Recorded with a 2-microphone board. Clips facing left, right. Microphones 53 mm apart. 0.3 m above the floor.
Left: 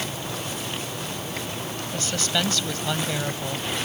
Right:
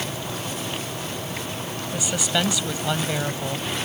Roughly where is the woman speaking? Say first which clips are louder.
Right 2 dB; centre.